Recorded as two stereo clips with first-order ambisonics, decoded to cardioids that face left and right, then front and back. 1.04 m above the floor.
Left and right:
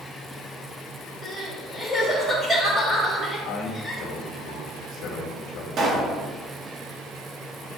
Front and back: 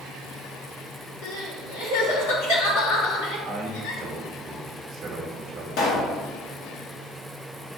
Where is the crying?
10° left, 3 m.